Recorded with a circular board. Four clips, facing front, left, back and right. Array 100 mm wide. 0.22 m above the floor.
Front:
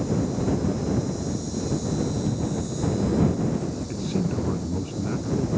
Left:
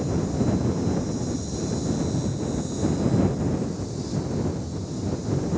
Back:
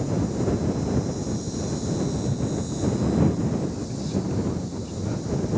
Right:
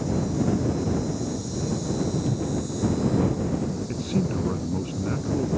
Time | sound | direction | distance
2.3 | a cupboard door | 70° right | ?
3.9 | a man speaking | 65° right | ?